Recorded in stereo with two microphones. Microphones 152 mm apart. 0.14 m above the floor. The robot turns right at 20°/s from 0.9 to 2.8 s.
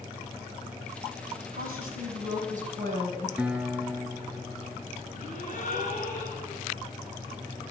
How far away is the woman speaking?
About 5 m.